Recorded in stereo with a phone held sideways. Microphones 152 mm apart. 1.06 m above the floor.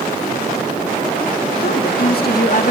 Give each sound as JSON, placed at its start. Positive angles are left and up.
{"t": 1.6, "sound": "a woman speaking", "side_deg": 80, "distance_m": 2.0}